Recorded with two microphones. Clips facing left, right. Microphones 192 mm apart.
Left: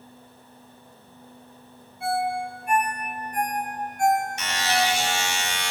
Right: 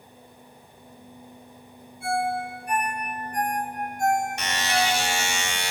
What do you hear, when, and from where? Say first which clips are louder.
2.0 s a ringtone: even; 85° left, 3.5 m
4.4 s a buzzer: left 1 dB; 60° right (ahead or behind), 2.5 m